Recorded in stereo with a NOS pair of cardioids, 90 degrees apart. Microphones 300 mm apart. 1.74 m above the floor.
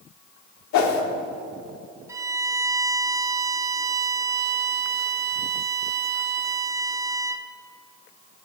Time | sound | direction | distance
0.7 | a whoosh | 70° left | 1.2 m
2.1 | a violin | 10° right | 0.6 m